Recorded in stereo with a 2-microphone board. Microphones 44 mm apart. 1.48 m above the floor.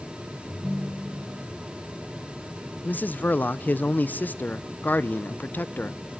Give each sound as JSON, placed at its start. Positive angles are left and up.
{"t": 0.5, "sound": "a ringtone", "side_deg": 5, "distance_m": 0.8}
{"t": 2.8, "sound": "a man speaking", "side_deg": 45, "distance_m": 0.5}